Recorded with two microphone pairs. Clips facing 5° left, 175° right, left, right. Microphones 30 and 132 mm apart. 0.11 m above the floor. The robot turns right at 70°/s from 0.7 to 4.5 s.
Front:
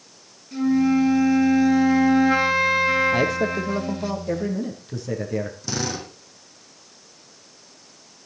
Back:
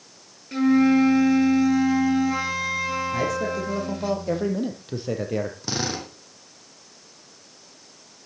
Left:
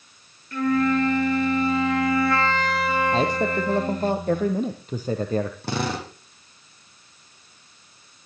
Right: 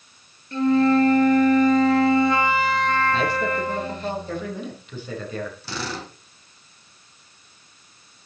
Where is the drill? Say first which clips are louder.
Even, left 5 dB; 125° left, 5 m.